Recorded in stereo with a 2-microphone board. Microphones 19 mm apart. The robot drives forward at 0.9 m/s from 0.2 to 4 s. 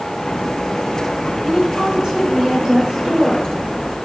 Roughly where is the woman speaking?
Right.